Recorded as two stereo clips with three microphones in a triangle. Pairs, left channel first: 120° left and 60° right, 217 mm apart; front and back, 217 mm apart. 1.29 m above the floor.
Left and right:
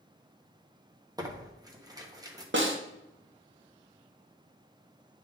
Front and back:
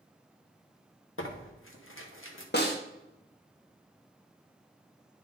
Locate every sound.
1.2 s tearing paper: 10° left, 1.1 m
2.5 s a snare drum: 35° right, 1.0 m